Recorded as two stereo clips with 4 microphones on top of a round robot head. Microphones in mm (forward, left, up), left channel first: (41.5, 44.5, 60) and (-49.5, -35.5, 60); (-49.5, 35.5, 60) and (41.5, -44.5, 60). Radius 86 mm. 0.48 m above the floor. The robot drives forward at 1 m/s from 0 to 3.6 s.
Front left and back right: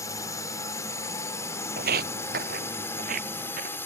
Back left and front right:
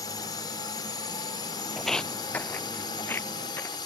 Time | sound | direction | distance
0.0 | a drone | 95° left | ?
1.8 | footsteps | 130° right | ?